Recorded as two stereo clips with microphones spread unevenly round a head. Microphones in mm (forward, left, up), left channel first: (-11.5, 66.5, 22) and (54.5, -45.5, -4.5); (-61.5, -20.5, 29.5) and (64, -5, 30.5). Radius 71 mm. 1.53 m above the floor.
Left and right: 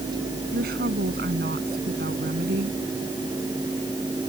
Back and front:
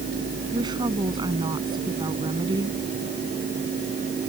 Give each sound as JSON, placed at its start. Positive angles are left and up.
{"t": 0.5, "sound": "a woman speaking", "azimuth_deg": -50}